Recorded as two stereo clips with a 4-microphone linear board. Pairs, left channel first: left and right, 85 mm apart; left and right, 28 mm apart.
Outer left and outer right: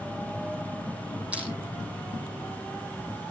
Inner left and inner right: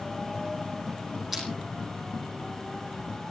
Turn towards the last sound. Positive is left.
turn(degrees=-15)  # may be behind; listen again after turning